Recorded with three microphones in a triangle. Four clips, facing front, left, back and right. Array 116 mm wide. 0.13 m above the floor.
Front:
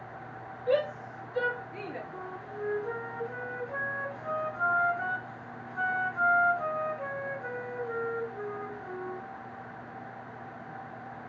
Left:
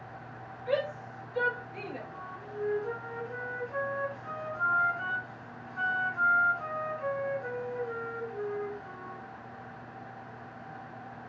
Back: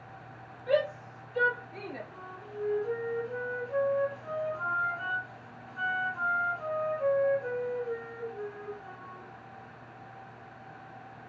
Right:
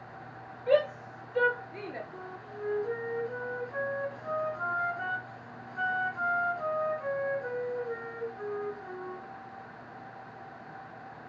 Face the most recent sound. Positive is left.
turn(degrees=5)